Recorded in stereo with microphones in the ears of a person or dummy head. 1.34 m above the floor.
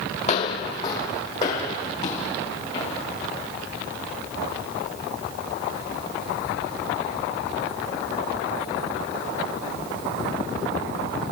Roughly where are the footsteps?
Left.